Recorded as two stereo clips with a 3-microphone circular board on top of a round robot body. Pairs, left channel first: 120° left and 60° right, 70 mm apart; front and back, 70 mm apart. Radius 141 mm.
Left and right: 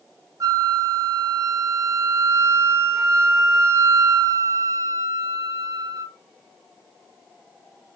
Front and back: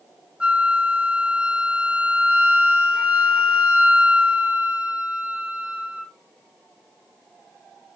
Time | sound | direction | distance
0.4 | a flute | 105° right | 0.7 m